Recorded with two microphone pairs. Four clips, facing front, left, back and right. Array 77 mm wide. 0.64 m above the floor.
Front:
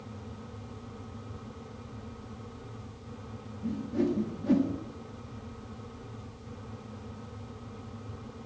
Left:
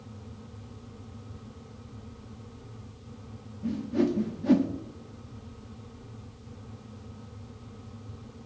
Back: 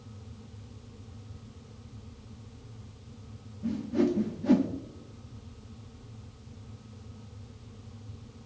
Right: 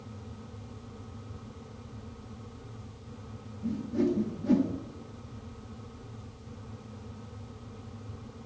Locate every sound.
3.6 s a whoosh: 120° left, 1.0 m